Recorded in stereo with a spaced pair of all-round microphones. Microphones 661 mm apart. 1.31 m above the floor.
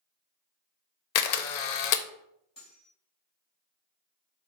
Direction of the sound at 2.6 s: 30° left (ahead or behind).